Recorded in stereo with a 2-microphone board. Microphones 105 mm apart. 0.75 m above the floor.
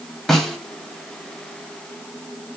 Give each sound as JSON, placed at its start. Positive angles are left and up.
{"t": 0.3, "sound": "a snare drum", "side_deg": 5, "distance_m": 1.0}